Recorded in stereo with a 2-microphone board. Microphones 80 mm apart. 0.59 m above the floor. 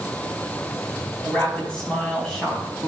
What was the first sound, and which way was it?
A woman speaking, 15° left (ahead or behind).